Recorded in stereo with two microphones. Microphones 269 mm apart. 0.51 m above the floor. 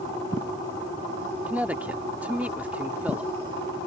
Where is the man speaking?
5° right (ahead or behind).